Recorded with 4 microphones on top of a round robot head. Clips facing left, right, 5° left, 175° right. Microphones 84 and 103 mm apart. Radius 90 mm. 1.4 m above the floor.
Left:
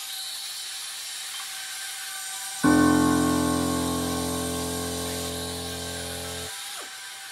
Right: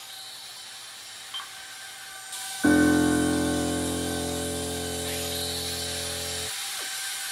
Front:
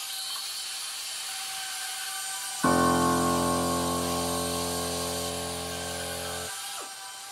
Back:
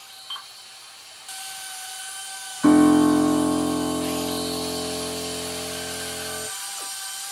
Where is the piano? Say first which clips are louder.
Left 1 dB, back 8 dB; 80° left, 1.8 m.